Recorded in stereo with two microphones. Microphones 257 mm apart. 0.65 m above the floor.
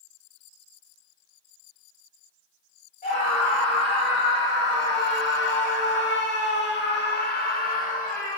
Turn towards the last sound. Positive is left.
turn(degrees=30)  # may be behind; listen again after turning